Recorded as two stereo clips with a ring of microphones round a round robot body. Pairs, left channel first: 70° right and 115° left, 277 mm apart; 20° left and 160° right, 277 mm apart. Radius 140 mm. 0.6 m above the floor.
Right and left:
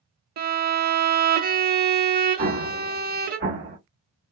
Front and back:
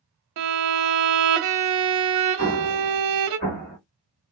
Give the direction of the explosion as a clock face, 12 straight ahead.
10 o'clock.